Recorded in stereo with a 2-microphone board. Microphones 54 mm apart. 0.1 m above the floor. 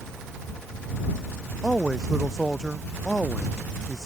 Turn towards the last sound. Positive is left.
turn(degrees=-10)  # may be behind; listen again after turning